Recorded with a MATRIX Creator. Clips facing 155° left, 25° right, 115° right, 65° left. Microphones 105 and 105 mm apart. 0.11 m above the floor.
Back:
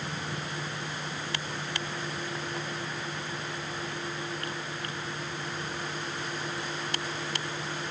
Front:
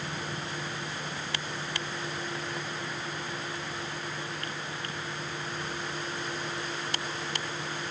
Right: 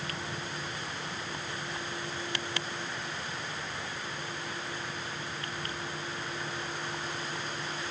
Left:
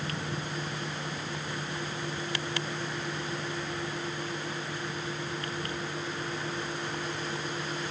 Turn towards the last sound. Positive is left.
No sound to turn to.